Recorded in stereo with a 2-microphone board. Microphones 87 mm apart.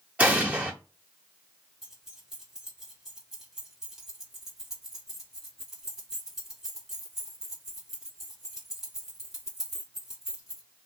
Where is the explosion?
15° right (ahead or behind), 0.7 m.